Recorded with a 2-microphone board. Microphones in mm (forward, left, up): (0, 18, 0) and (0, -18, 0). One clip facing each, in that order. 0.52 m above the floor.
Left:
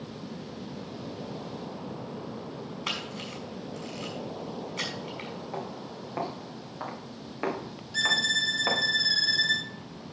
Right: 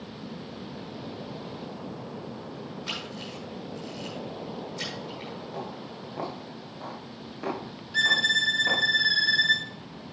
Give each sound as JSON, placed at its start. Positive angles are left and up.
{"t": 2.9, "sound": "a camera shutter", "side_deg": 70, "distance_m": 6.0}
{"t": 5.5, "sound": "footsteps", "side_deg": 50, "distance_m": 7.0}
{"t": 7.9, "sound": "a violin", "side_deg": -25, "distance_m": 1.1}